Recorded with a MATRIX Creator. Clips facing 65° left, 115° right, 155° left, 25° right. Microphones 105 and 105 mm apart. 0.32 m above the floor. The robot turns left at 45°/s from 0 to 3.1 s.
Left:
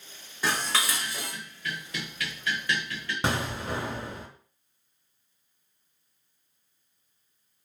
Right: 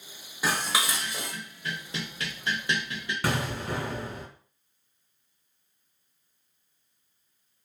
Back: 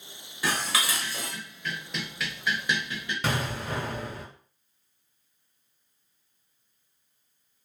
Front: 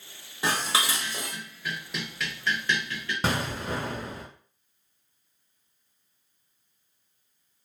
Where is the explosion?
15° left, 1.3 m.